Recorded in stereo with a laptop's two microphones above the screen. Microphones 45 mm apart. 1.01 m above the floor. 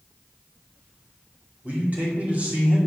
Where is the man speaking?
40° right (ahead or behind), 2.5 m.